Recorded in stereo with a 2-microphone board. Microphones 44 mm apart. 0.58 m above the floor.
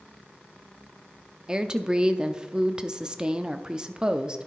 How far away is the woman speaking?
About 0.6 m.